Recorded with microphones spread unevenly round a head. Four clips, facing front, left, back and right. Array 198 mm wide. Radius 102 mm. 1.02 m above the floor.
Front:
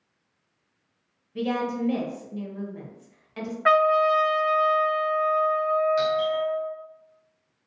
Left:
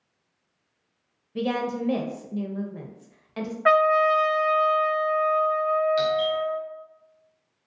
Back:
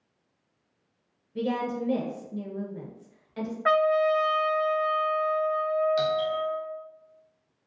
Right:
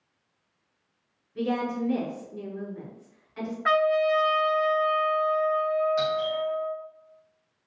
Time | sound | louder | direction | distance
1.4 | a woman speaking | left 1 dB, front 2 dB | 95° left | 0.6 m
3.6 | a trumpet | left 3 dB, front 3 dB | 40° left | 0.7 m
6.0 | a doorbell | left 3 dB, front 2 dB | 165° right | 0.6 m